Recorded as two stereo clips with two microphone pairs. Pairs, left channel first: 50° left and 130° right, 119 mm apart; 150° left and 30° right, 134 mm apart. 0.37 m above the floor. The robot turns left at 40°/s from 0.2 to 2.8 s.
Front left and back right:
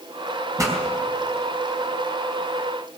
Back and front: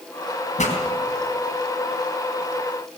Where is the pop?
170° left, 3.5 m; by 0.8 s 160° left, 3.5 m.